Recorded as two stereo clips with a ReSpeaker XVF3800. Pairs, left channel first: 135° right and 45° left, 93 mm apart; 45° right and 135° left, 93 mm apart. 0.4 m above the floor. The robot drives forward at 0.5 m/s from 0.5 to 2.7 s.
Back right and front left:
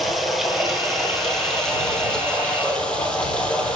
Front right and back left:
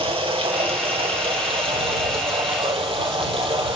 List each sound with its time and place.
0.0 s running water: 135° left, 3 m; by 3.8 s 145° left, 4 m